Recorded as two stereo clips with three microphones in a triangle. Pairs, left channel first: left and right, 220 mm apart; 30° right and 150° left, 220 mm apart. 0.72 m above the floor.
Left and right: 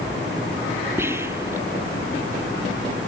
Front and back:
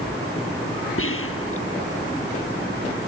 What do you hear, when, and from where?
1.0 s whispering: 10° right